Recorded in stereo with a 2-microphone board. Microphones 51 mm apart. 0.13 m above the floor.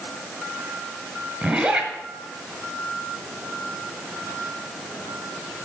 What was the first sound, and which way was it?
A zipper, 10° right (ahead or behind).